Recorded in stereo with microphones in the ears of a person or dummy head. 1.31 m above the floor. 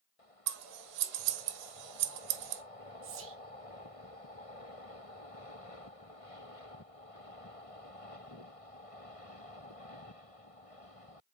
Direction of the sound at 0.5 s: 65° right (ahead or behind).